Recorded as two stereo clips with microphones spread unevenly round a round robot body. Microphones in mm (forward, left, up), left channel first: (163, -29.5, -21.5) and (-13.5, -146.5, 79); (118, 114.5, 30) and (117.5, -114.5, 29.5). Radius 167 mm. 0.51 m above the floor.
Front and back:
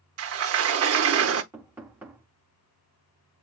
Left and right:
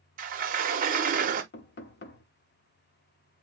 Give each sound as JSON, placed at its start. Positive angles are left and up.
{"t": 0.2, "sound": "a sliding door", "azimuth_deg": -125, "distance_m": 0.8}
{"t": 1.5, "sound": "knocking", "azimuth_deg": 110, "distance_m": 0.9}